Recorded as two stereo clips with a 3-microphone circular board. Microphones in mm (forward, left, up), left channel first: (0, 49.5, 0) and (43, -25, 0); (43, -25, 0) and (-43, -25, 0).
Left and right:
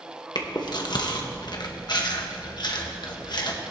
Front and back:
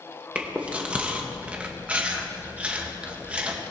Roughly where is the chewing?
Left.